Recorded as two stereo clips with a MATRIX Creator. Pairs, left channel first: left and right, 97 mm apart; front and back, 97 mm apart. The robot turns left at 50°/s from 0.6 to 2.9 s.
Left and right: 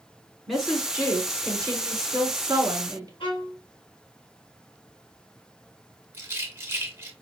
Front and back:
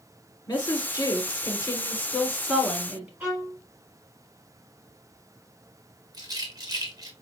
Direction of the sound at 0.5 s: Straight ahead.